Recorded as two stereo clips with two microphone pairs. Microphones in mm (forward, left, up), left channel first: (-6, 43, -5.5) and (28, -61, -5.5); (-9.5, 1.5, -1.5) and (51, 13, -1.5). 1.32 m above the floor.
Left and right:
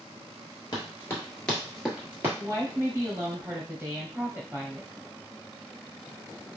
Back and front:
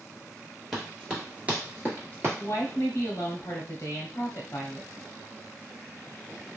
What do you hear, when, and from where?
0.7 s running footsteps: 95° left, 1.6 m; by 2.3 s 15° right, 1.6 m
2.4 s a woman speaking: 140° right, 0.8 m